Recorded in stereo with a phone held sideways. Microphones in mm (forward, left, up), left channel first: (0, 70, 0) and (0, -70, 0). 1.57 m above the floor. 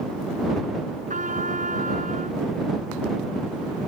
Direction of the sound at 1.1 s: 70° right (ahead or behind).